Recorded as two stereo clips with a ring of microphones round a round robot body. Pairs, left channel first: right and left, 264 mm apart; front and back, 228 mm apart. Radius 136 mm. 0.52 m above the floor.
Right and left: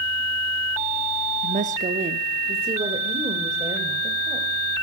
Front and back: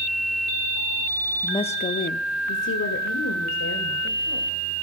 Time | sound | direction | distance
1.4 | a woman speaking | 65° left | 0.7 m